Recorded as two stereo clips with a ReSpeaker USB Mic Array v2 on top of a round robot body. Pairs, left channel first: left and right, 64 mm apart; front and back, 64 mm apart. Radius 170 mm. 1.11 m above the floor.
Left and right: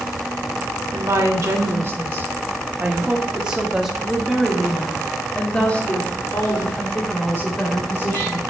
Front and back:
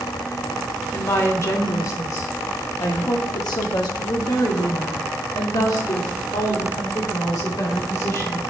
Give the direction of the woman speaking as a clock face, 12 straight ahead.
2 o'clock.